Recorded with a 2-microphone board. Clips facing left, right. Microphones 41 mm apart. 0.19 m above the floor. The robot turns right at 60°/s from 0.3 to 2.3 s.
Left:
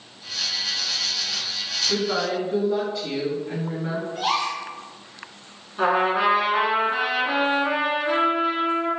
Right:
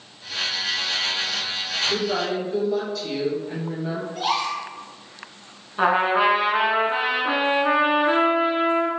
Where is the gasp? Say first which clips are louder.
Even; 10° left (ahead or behind), 1.5 m.